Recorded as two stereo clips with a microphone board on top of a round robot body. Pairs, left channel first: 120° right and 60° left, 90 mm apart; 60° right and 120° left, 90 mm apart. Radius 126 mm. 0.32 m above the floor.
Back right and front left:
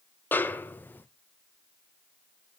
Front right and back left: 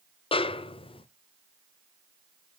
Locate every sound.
0.3 s a snare drum: 50° right, 0.6 m